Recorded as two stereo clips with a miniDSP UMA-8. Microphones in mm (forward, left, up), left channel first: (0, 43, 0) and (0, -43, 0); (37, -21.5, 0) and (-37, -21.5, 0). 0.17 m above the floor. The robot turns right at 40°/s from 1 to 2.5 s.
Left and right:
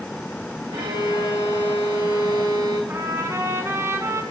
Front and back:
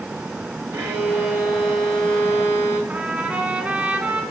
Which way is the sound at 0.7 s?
120° right.